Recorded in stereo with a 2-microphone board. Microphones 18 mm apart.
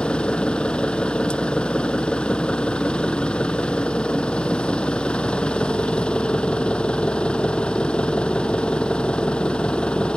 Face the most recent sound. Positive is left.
turn(degrees=90)